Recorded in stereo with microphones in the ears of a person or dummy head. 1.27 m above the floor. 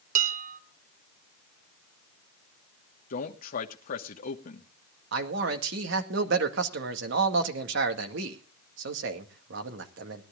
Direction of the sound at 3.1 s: 50° left (ahead or behind).